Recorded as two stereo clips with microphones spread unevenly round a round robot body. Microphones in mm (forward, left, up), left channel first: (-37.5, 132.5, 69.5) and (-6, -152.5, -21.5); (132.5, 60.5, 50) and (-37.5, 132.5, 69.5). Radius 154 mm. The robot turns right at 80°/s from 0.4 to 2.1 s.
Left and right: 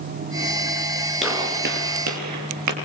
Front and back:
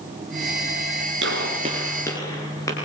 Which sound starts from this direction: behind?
A gunshot, at 1.2 s.